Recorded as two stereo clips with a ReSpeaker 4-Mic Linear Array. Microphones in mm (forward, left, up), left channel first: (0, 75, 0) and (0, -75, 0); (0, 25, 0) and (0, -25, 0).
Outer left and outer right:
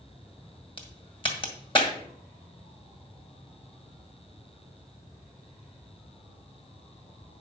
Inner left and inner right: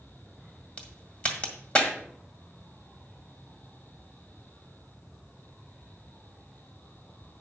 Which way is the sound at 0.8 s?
35° left (ahead or behind).